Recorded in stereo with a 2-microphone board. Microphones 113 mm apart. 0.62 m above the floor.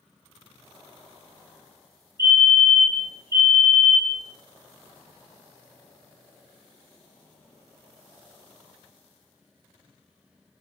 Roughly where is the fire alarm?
Right.